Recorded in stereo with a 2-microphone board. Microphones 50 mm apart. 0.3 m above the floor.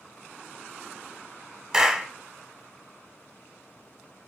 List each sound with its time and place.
1.7 s a clap: 15° right (ahead or behind), 0.9 m